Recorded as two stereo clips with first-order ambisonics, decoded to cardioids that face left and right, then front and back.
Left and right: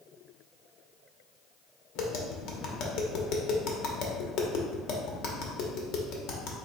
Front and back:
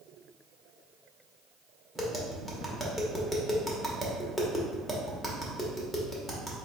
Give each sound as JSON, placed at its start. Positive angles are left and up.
{"t": 1.9, "sound": "tapping", "azimuth_deg": 100, "distance_m": 0.8}